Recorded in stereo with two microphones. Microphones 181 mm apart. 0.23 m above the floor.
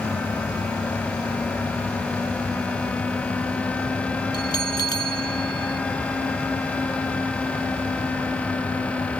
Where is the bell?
20° left (ahead or behind).